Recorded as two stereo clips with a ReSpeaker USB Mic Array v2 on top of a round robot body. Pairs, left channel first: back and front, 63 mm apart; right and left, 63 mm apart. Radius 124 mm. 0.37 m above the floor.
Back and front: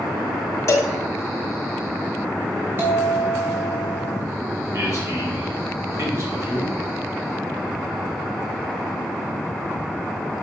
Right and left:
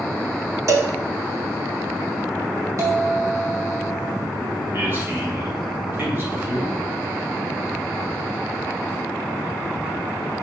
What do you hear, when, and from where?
0.7 s a cowbell: 130° left, 0.6 m
2.8 s a bell: 55° left, 3.5 m
4.7 s a man speaking: 40° left, 3 m